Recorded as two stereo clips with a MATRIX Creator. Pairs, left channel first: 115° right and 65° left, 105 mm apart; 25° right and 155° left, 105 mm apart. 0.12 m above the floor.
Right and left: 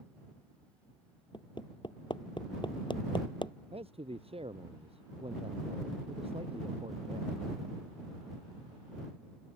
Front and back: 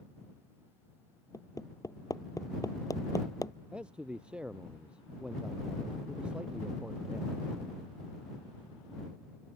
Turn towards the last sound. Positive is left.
turn(degrees=75)